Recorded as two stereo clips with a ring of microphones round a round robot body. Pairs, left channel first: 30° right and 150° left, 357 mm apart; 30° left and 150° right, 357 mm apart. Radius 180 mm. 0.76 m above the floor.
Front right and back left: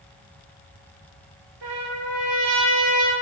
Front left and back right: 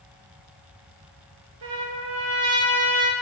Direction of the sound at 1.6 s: 150° right.